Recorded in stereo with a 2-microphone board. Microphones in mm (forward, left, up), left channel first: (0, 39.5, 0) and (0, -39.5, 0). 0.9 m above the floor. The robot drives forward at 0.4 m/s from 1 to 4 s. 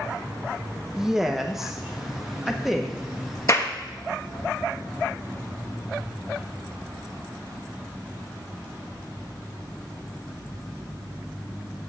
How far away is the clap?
About 1.1 m.